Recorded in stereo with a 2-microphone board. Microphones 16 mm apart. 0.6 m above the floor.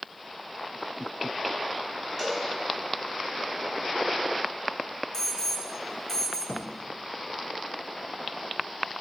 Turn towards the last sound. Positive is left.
turn(degrees=85)